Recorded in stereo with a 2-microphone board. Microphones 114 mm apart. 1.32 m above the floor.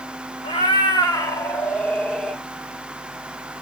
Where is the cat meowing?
50° left (ahead or behind), 1.1 m; by 2.4 s centre (ahead or behind), 1.5 m.